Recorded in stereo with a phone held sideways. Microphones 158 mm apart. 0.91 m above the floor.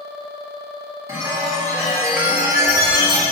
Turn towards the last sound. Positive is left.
turn(degrees=-20)  # may be behind; listen again after turning